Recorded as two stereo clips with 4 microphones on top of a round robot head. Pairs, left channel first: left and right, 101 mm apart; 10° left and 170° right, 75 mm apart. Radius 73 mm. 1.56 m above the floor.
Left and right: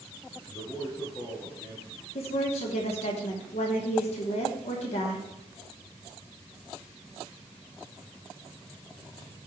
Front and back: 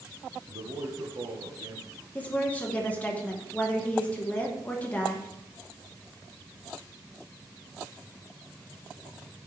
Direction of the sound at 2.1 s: 80° left.